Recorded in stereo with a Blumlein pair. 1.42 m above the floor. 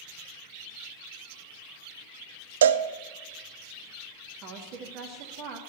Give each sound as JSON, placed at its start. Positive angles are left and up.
{"t": 2.6, "sound": "a cowbell", "azimuth_deg": -60, "distance_m": 0.5}
{"t": 4.4, "sound": "a woman speaking", "azimuth_deg": -40, "distance_m": 2.0}